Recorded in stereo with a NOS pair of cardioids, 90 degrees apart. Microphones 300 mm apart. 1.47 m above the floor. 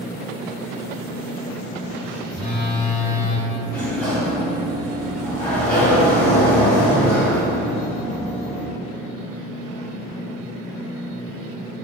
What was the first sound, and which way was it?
A phone buzzing, 25° left.